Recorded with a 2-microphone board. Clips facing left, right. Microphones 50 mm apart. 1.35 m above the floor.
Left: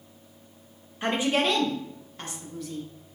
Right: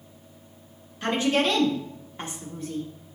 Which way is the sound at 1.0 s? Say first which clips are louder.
Right 1 dB; 20° left (ahead or behind).